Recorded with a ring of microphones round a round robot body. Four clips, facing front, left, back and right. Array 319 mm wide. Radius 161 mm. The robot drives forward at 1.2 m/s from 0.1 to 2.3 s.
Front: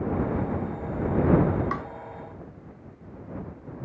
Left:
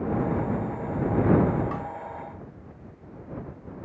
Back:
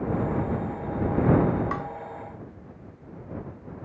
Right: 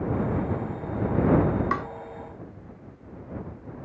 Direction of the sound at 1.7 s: 85° right.